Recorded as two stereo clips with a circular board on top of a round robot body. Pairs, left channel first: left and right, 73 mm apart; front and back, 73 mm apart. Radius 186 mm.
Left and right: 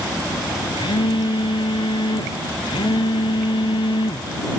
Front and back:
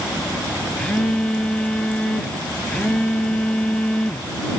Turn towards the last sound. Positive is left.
turn(degrees=80)